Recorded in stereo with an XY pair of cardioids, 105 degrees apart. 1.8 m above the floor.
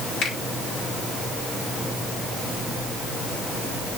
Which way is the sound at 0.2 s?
65° left.